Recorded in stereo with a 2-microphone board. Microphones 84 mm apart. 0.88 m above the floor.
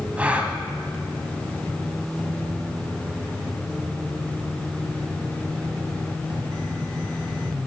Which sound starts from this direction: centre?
A gasp, at 0.2 s.